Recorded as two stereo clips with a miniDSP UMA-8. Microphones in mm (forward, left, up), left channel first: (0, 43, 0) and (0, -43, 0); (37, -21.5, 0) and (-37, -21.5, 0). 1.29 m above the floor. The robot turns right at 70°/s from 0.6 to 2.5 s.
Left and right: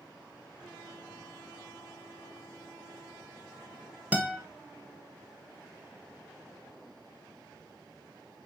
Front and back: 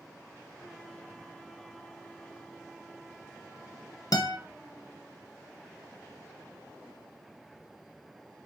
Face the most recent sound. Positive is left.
turn(degrees=-20)